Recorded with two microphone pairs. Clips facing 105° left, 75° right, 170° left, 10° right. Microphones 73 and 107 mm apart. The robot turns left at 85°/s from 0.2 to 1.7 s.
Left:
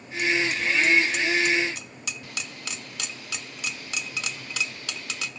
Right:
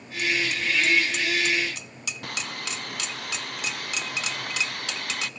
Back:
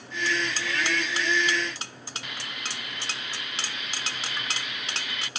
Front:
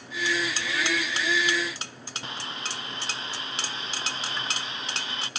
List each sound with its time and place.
2.2 s sawing: 65° right